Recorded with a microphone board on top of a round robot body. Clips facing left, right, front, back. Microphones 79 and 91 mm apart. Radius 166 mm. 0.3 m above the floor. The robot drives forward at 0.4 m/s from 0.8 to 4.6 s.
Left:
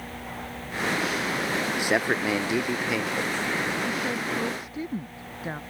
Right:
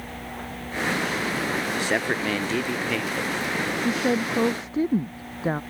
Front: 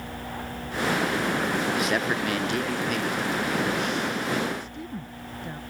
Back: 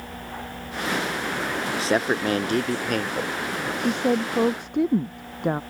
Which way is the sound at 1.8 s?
155° left.